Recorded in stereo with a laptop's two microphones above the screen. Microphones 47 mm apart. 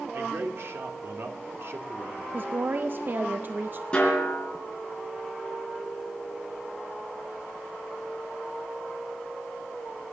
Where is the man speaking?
55° right (ahead or behind), 2.5 m.